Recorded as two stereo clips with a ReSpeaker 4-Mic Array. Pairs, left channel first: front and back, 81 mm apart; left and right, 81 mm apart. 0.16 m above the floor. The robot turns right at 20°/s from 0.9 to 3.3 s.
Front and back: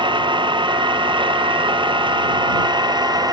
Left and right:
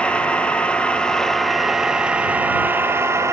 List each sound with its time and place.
0.0 s an engine running: 165° left; by 3.3 s 145° right